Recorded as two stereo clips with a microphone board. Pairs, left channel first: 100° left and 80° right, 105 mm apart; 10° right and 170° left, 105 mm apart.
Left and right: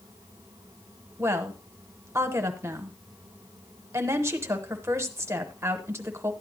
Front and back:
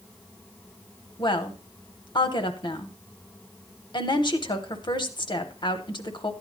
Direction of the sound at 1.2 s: 25° right.